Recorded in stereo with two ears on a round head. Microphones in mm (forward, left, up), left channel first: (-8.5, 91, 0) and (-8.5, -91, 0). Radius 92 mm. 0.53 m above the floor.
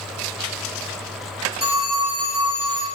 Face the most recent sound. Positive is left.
turn(degrees=-20)  # may be behind; listen again after turning